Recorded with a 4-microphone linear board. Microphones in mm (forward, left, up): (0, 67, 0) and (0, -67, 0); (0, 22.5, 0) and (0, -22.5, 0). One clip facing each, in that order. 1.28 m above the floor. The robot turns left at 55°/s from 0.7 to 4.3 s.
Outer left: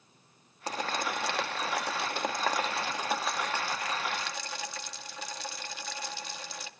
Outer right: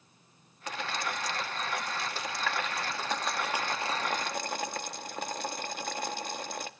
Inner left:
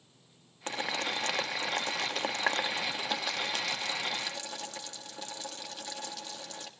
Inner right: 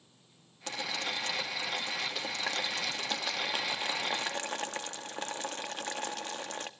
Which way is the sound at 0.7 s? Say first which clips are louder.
Outer left 2 dB, inner left 2 dB; 35° left (ahead or behind).